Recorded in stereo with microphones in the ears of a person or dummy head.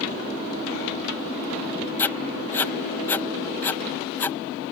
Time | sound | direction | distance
2.0 | writing | 10° left (ahead or behind) | ?